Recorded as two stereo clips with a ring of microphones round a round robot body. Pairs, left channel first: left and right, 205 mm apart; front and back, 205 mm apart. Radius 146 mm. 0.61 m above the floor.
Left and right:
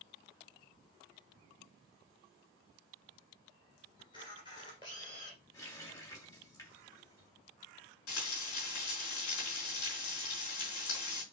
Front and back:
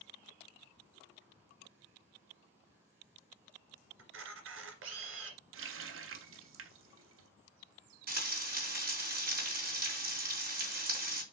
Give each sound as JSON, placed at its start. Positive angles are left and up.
{"t": 4.0, "sound": "a camera shutter", "azimuth_deg": 165, "distance_m": 2.0}
{"t": 5.5, "sound": "a running tap", "azimuth_deg": 170, "distance_m": 1.0}
{"t": 8.1, "sound": "frying", "azimuth_deg": 135, "distance_m": 3.5}